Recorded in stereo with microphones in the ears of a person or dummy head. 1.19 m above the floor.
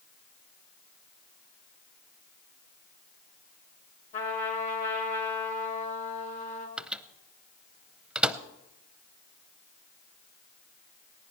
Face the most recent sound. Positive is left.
turn(degrees=0)  # may be behind; listen again after turning